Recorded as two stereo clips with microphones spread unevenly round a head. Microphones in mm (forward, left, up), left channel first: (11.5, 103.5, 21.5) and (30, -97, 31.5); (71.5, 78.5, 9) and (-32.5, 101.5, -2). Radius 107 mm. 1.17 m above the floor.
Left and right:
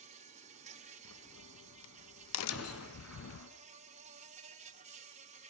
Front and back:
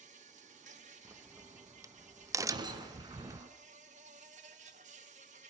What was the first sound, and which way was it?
An insect, 145° right.